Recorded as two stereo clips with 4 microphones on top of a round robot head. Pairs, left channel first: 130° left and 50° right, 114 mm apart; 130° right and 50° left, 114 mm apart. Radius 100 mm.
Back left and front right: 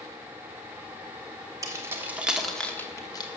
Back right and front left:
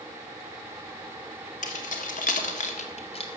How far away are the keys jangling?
About 1.9 m.